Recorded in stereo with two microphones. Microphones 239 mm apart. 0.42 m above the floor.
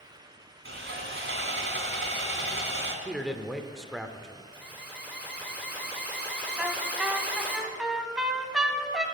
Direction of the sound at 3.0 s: Centre (ahead or behind).